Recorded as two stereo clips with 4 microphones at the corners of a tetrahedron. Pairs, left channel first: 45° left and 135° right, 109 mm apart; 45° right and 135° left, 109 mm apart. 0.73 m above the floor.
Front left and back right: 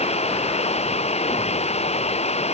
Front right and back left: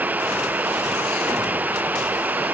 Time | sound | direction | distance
0.0 | running water | 60° left | ?